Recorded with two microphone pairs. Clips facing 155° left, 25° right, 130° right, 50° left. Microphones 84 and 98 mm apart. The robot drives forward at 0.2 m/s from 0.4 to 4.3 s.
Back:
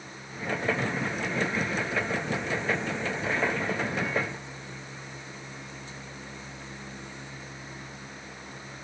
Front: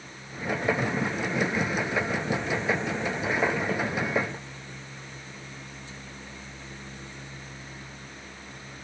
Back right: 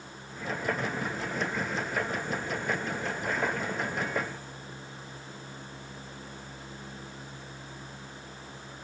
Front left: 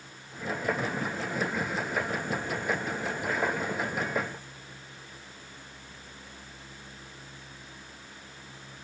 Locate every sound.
Only background noise.